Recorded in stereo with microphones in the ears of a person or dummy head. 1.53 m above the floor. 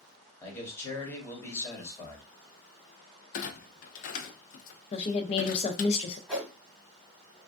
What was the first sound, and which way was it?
A man speaking, 15° left (ahead or behind).